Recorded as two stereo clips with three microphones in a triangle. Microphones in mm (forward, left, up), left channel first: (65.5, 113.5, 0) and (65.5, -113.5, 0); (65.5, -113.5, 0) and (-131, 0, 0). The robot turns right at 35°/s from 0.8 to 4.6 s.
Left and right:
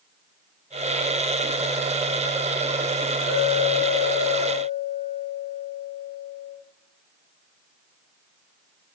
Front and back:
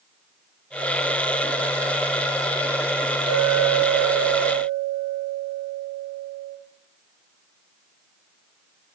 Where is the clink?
80° right, 1.0 m; by 6.6 s 30° right, 1.0 m.